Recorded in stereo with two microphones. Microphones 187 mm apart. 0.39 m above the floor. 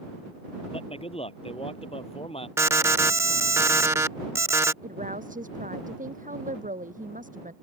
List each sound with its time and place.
0.7 s a man speaking: 30° left (ahead or behind)
2.6 s an alarm: 15° right (ahead or behind)
4.8 s a woman speaking: 45° right (ahead or behind)